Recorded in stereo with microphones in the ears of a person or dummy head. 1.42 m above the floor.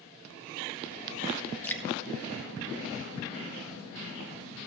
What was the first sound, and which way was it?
Dripping, 10° left (ahead or behind).